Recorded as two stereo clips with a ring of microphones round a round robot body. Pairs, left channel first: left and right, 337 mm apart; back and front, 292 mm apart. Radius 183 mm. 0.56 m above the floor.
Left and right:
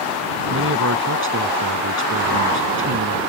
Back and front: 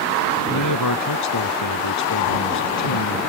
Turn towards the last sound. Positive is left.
turn(degrees=-145)